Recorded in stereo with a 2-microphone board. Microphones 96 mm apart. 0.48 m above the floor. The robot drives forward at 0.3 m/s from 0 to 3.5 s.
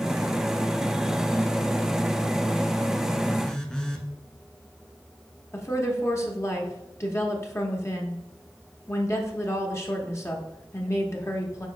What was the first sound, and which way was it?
A phone buzzing, 10° left (ahead or behind).